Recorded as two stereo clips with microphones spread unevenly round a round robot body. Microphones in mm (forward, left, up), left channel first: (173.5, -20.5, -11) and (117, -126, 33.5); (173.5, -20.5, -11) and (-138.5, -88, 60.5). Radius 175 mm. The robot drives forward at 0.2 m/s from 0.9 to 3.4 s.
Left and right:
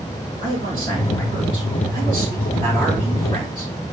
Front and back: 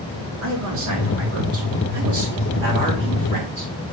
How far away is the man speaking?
About 2.5 m.